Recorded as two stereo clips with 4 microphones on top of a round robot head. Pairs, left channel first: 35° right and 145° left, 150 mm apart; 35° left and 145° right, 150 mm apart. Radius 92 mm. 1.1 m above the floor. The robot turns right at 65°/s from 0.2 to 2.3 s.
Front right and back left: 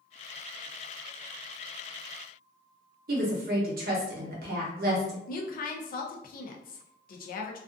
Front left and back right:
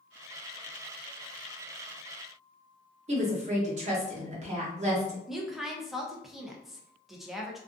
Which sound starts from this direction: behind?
A woman speaking, at 3.1 s.